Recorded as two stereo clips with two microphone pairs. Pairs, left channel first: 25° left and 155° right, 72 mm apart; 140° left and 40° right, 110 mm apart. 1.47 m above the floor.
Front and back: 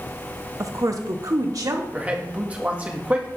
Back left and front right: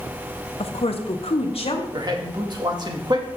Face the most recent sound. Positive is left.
turn(degrees=-85)